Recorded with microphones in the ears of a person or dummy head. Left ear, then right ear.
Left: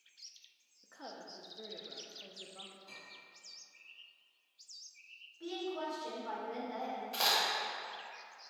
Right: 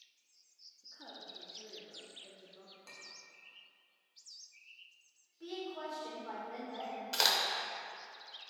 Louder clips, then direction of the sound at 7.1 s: Right 2 dB; 60° right (ahead or behind).